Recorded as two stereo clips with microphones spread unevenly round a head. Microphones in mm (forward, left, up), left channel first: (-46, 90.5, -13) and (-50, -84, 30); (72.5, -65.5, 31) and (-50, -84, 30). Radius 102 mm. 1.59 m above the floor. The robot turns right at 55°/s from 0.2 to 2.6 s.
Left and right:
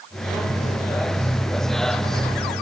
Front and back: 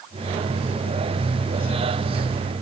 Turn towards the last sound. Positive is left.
No sound to turn to.